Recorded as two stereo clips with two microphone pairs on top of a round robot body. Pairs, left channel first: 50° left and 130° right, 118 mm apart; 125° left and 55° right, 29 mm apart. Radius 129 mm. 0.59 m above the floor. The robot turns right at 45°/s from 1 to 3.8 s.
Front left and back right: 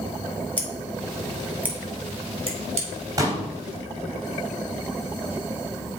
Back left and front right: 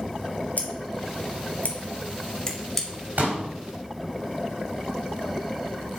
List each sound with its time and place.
0.6 s scissors: 120° left, 2 m; by 2.9 s 155° right, 2 m
3.2 s a pop: 65° right, 3 m; by 3.4 s 55° right, 3 m